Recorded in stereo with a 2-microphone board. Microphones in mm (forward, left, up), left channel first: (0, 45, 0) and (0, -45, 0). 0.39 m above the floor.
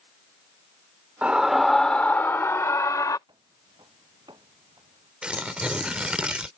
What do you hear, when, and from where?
1.2 s a scream: 15° right (ahead or behind); by 3.2 s 45° left (ahead or behind)
3.3 s footsteps: 65° right (ahead or behind)
5.2 s tearing paper: 10° right (ahead or behind)